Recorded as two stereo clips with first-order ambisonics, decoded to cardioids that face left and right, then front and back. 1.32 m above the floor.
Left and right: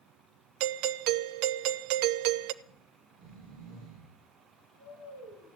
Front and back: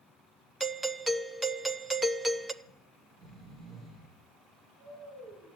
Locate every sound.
0.6 s a doorbell: 100° right, 0.6 m
2.6 s snoring: 120° right, 8 m